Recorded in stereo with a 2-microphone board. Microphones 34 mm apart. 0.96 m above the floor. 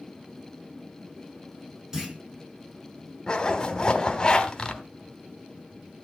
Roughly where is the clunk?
Centre.